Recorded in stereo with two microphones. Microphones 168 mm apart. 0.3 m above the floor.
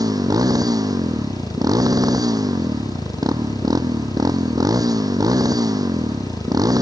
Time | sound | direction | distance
0.0 | a motorcycle | 20° right (ahead or behind) | ?